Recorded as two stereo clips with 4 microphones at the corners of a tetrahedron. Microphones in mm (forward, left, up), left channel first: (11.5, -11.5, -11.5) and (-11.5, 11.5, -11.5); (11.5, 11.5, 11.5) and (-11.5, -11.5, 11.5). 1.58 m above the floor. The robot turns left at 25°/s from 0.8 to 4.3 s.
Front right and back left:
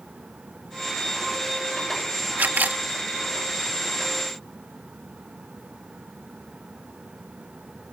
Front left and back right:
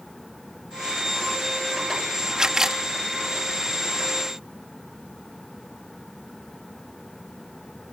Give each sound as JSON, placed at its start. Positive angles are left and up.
{"t": 2.4, "sound": "a camera shutter", "azimuth_deg": 155}